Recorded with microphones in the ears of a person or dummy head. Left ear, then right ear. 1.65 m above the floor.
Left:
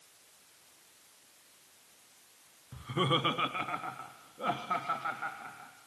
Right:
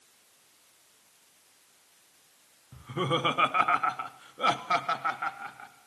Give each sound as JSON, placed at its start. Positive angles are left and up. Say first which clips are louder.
{"t": 2.7, "sound": "laughter", "louder": "right 1 dB", "side_deg": 15, "distance_m": 0.8}